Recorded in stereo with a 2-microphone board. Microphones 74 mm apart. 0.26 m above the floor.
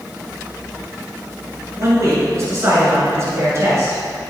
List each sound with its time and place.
1.8 s a man speaking: 40° right (ahead or behind), 2.5 m